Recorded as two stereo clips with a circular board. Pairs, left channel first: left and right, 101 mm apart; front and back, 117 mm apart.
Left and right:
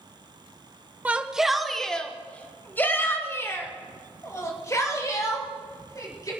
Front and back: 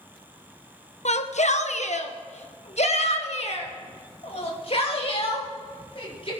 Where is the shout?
15° right, 1.1 m; by 6.3 s 35° left, 4 m.